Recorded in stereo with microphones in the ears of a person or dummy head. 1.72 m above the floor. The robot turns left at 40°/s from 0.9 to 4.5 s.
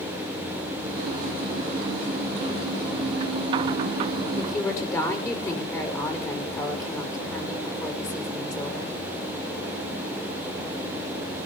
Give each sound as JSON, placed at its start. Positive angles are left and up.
{"t": 4.4, "sound": "a woman speaking", "side_deg": 30, "distance_m": 5.5}